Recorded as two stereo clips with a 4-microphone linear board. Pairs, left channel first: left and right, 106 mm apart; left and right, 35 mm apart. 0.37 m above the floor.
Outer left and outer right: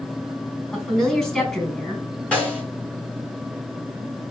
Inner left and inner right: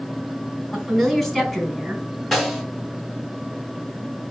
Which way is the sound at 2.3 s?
10° left (ahead or behind).